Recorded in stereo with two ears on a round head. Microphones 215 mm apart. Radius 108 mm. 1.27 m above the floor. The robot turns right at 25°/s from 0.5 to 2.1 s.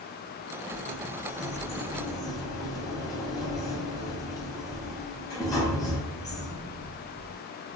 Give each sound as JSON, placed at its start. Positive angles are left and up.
{"t": 0.7, "sound": "a sliding door", "azimuth_deg": 130, "distance_m": 1.4}